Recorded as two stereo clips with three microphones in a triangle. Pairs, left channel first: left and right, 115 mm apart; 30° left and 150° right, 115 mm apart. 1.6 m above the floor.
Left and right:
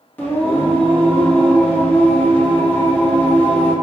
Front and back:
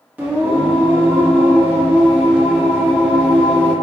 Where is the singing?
150° left, 1.0 m.